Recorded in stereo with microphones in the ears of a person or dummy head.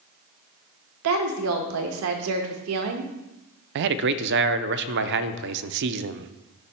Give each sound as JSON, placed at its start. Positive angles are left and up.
{"t": 1.0, "sound": "a woman speaking", "side_deg": -75, "distance_m": 1.1}
{"t": 3.8, "sound": "a man speaking", "side_deg": -60, "distance_m": 0.5}